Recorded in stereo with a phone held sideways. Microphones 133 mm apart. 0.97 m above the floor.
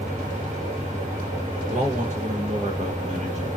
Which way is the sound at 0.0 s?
70° right (ahead or behind).